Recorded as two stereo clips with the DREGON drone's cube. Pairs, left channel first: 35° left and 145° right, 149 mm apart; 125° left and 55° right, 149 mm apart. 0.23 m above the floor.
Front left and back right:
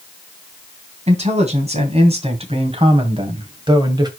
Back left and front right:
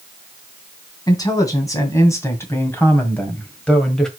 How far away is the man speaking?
About 3 m.